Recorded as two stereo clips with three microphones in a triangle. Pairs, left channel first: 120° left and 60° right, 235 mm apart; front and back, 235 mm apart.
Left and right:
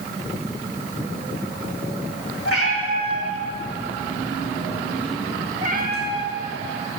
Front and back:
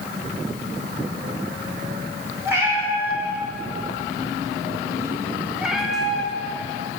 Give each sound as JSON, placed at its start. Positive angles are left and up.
{"t": 2.5, "sound": "a cat meowing", "azimuth_deg": 100, "distance_m": 3.0}